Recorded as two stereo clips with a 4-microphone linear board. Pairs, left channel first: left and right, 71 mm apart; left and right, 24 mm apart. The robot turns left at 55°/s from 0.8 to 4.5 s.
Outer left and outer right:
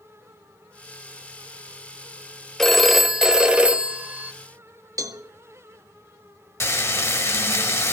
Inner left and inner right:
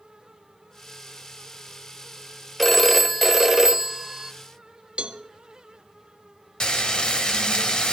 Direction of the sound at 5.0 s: 55° right (ahead or behind).